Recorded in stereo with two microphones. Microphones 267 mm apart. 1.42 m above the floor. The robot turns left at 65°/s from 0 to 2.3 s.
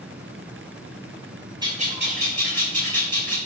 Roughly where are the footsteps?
No footsteps in this recording.